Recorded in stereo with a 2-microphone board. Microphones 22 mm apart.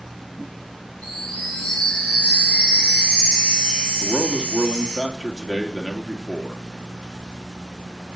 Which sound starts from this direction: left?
A chime, at 1.0 s.